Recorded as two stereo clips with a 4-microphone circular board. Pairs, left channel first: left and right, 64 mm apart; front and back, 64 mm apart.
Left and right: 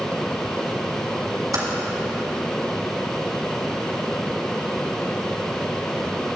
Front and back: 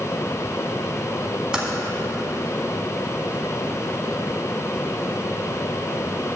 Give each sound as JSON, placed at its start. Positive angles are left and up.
{"t": 1.5, "sound": "typing on a keyboard", "azimuth_deg": -105, "distance_m": 1.8}